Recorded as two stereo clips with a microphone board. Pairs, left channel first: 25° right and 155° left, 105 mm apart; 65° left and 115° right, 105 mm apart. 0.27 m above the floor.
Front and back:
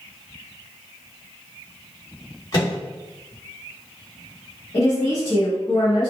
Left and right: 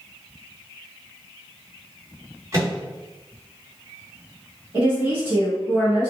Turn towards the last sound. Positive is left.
turn(degrees=-50)